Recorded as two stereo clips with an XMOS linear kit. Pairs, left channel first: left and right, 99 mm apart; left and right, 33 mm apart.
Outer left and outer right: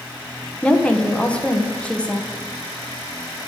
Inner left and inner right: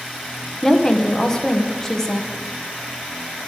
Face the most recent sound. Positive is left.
turn(degrees=10)  # may be behind; listen again after turning